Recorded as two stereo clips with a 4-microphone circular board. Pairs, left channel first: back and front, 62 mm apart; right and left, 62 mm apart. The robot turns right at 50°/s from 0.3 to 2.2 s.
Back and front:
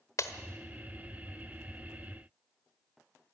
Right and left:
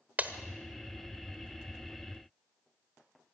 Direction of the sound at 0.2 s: 150° left.